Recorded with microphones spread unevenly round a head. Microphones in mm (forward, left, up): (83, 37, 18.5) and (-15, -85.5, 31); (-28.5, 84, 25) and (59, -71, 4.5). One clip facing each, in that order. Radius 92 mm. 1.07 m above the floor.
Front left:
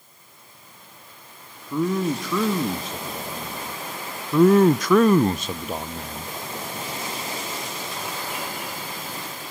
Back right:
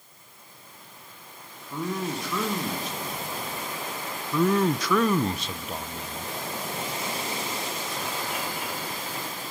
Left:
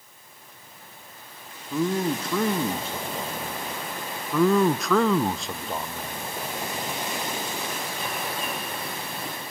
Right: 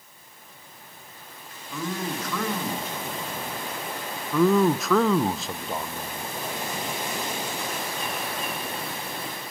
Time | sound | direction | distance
1.7 | a man speaking | 55° left | 1.6 m
4.3 | a man speaking | 25° left | 0.5 m